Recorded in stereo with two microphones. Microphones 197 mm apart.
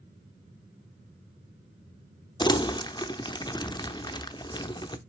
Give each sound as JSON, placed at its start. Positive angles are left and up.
{"t": 2.4, "sound": "crumpling", "side_deg": 20, "distance_m": 0.7}